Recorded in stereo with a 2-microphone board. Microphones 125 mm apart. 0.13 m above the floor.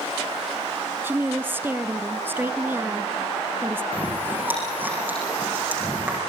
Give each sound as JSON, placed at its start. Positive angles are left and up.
{"t": 1.0, "sound": "a woman speaking", "side_deg": -20, "distance_m": 1.3}
{"t": 3.9, "sound": "chewing", "side_deg": -15, "distance_m": 8.5}